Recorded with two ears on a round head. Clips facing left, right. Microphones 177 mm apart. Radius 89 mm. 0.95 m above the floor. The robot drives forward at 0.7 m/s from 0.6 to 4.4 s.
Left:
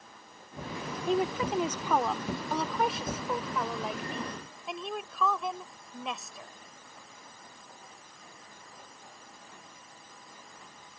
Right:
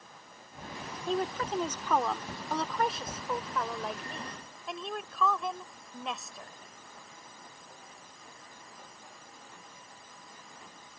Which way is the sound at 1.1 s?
10° left (ahead or behind).